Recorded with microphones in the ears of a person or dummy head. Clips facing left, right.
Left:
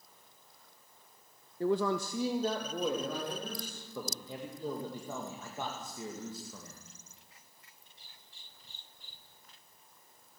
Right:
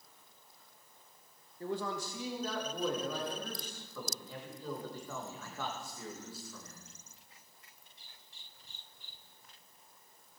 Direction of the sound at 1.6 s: 55° left (ahead or behind).